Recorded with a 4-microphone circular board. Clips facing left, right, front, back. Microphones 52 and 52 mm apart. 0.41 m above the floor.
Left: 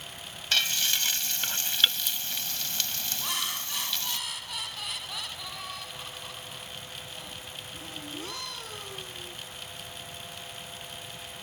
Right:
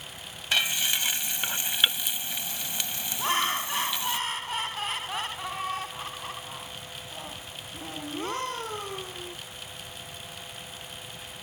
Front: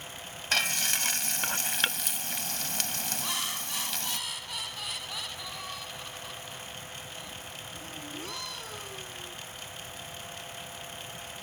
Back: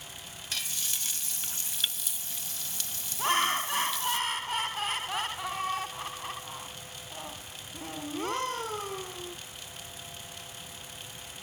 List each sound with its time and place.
0.5 s frying: 20° right
3.2 s laughter: 140° right